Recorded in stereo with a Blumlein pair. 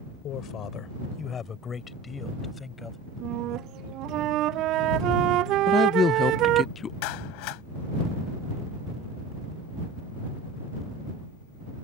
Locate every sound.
0.2 s a man speaking: 35° left; by 3.0 s 10° left
3.2 s a flute: 35° right
5.7 s a woman speaking: 20° left
7.0 s a clap: 45° left